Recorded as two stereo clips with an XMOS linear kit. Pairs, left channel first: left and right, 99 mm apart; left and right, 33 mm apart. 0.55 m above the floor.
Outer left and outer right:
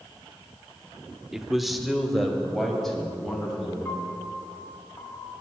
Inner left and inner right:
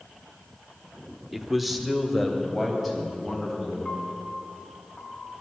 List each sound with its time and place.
1.3 s a man speaking: 5° right (ahead or behind), 0.7 m; by 3.8 s centre (ahead or behind), 4 m
3.9 s a piano: 25° left (ahead or behind), 1.7 m